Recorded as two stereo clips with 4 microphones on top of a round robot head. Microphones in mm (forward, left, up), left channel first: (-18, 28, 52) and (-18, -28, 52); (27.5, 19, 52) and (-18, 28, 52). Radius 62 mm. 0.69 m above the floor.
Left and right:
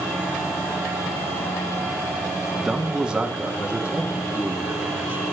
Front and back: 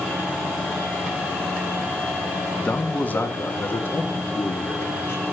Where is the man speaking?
15° right, 1.1 m; by 5.2 s 30° right, 2 m.